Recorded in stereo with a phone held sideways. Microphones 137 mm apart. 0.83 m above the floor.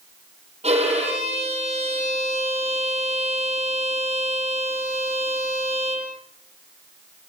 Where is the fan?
No fan in this recording.